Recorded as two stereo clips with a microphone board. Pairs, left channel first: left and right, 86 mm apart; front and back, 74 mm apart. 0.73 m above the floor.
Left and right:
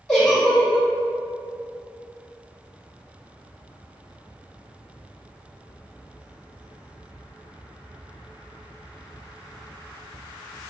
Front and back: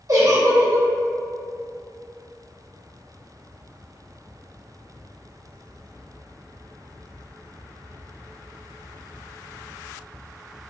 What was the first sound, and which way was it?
A giggle, 175° left.